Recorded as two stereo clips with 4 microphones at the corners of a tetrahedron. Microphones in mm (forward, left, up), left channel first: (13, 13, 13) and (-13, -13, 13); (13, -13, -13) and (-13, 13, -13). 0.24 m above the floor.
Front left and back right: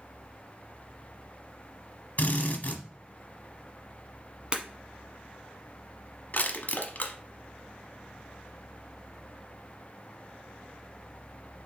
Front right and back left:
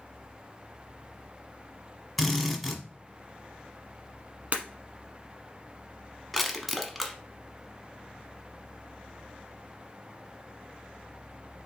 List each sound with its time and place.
2.2 s a drill: 50° left, 1.1 m
4.5 s breaking glass: 170° left, 1.1 m
6.3 s crushing: 45° left, 0.9 m